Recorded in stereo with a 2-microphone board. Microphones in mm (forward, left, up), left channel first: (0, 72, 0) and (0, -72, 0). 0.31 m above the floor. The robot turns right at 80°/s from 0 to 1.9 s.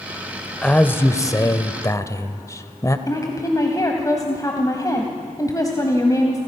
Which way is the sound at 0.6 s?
5° left (ahead or behind).